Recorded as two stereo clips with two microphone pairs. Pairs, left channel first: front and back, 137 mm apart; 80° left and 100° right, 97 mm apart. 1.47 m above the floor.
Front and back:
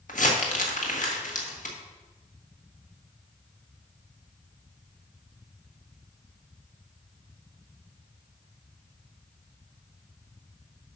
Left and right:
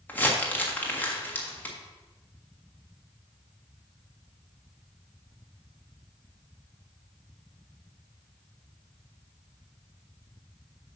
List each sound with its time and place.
0.1 s crumpling: 5° left, 1.6 m